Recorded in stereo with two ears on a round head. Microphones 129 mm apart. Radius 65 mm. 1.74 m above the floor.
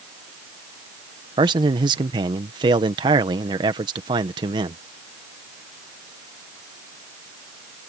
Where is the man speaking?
30° right (ahead or behind).